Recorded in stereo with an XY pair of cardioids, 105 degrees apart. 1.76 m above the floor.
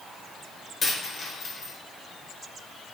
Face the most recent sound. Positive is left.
turn(degrees=45)